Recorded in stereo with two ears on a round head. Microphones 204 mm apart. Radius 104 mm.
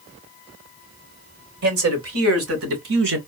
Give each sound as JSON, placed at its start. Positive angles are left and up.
{"t": 1.6, "sound": "a man speaking", "side_deg": -70, "distance_m": 3.0}